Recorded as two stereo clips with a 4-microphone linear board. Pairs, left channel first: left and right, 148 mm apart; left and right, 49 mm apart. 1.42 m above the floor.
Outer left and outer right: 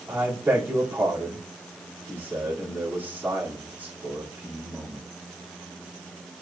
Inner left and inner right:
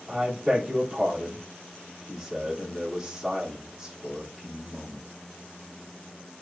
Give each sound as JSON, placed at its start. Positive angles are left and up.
{"t": 0.1, "sound": "a man speaking", "side_deg": -15, "distance_m": 4.0}